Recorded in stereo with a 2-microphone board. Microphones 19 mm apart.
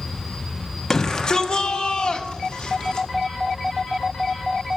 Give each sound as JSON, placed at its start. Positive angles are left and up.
{"t": 0.9, "sound": "a shout", "side_deg": 25, "distance_m": 1.0}